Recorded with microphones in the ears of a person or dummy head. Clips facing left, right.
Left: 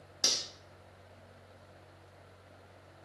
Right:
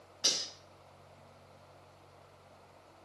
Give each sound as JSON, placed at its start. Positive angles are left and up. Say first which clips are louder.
{"t": 0.2, "sound": "cutlery clinking", "louder": "left 1 dB", "side_deg": 65, "distance_m": 0.7}